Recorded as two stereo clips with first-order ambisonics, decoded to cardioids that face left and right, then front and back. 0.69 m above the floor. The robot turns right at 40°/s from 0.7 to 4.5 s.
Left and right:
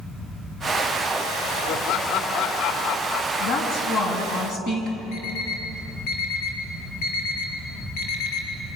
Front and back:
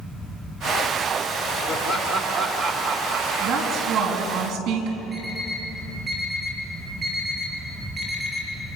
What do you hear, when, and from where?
1.7 s laughter: 55° left, 3 m; by 4.4 s 160° left, 3 m
3.4 s a woman speaking: 105° left, 5.5 m; by 5.0 s 150° left, 5.5 m
5.1 s an alarm clock: 105° left, 7 m